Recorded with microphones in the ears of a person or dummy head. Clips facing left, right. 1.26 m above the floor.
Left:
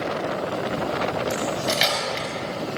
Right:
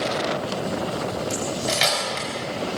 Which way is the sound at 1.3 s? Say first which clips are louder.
Left 1 dB; 10° left (ahead or behind).